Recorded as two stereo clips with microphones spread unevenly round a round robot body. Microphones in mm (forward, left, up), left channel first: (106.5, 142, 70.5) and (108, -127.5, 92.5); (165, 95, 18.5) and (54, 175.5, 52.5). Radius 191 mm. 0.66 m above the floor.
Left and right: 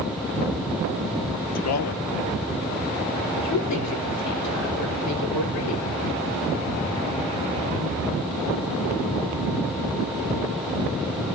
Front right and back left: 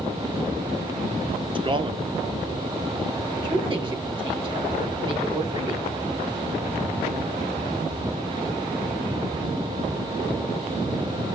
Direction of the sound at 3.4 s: 85° left.